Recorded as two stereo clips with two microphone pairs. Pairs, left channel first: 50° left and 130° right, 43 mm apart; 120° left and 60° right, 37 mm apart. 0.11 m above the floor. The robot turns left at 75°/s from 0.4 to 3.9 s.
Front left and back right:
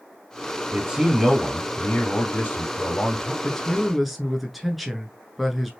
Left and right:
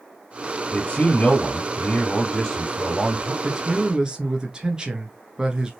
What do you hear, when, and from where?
0.7 s a man speaking: 175° right, 2.5 m; by 3.3 s 15° right, 2.5 m
3.4 s a man speaking: 5° right, 1.2 m; by 5.7 s 40° right, 1.2 m